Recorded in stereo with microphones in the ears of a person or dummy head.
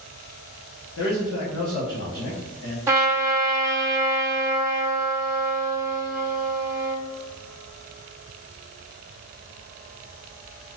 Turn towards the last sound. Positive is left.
turn(degrees=-15)  # may be behind; listen again after turning